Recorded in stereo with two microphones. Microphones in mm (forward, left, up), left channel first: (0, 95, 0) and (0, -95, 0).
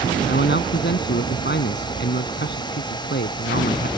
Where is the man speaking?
65° left (ahead or behind).